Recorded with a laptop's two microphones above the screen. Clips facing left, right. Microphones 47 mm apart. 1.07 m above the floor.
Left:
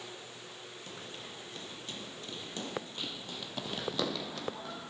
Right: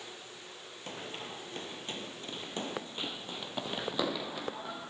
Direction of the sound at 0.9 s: 40° right (ahead or behind).